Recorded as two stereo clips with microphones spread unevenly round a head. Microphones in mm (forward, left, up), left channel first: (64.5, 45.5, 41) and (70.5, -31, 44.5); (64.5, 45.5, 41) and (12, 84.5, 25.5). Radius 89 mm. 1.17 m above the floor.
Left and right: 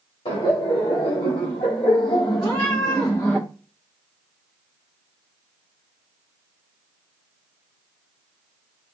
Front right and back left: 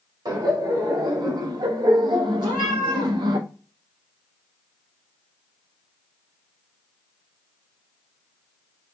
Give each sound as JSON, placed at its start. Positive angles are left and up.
{"t": 0.2, "sound": "laughter", "azimuth_deg": 120, "distance_m": 2.0}
{"t": 2.4, "sound": "a cat meowing", "azimuth_deg": 165, "distance_m": 1.7}